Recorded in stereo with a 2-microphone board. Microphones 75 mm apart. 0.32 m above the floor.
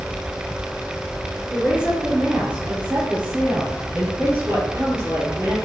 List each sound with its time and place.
1.5 s a woman speaking: 15° right (ahead or behind), 4 m; by 5.6 s 40° right (ahead or behind), 6.5 m